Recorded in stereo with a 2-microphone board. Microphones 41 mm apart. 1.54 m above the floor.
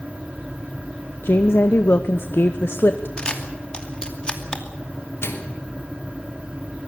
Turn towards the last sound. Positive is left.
turn(degrees=80)